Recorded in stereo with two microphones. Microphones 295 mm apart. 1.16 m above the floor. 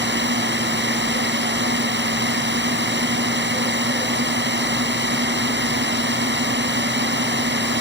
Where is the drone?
40° right (ahead or behind).